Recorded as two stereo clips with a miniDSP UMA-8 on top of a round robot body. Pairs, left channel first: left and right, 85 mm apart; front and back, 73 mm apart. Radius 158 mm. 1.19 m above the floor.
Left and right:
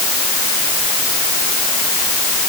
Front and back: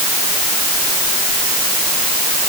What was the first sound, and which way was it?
Only background noise.